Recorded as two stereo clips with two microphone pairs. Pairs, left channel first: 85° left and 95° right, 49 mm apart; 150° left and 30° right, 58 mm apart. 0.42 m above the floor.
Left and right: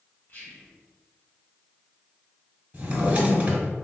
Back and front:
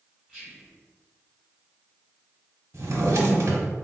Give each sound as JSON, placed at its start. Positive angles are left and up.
{"t": 0.3, "sound": "whispering", "azimuth_deg": 70, "distance_m": 1.8}
{"t": 2.7, "sound": "a drawer", "azimuth_deg": -40, "distance_m": 0.8}